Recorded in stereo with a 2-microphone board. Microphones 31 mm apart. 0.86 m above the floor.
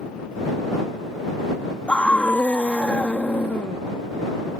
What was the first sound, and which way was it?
A scream, 45° left (ahead or behind).